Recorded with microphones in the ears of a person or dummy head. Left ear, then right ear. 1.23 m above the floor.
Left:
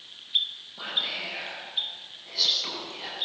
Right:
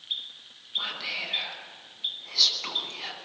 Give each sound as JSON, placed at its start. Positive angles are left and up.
{"t": 0.8, "sound": "whispering", "side_deg": -25, "distance_m": 9.0}